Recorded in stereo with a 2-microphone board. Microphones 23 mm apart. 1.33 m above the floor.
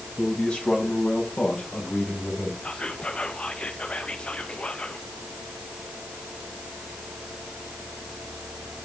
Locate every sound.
0.2 s a man speaking: 55° left (ahead or behind), 7.5 m; by 2.5 s 75° left (ahead or behind), 6.5 m
2.6 s whispering: 55° left (ahead or behind), 0.6 m